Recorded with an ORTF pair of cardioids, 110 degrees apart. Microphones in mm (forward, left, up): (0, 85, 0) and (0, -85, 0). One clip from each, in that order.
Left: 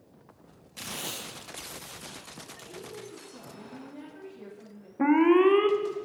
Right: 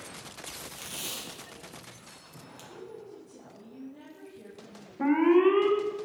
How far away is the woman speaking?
About 3 m.